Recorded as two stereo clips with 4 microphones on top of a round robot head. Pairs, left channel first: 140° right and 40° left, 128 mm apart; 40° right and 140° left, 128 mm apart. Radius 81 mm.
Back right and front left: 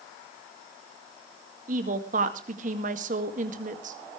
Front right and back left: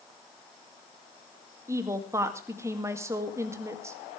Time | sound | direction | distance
1.7 | a woman speaking | 70° left | 2 m